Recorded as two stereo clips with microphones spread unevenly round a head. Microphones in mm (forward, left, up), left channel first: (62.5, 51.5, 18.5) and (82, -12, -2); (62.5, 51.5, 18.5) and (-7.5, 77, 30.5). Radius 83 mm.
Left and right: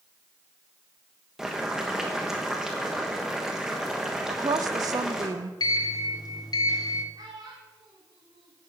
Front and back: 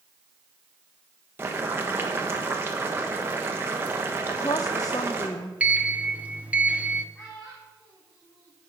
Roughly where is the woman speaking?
Right.